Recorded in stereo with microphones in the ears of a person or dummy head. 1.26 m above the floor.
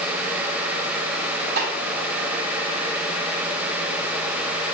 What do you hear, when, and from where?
1.6 s a snare drum: 55° right (ahead or behind), 2.5 m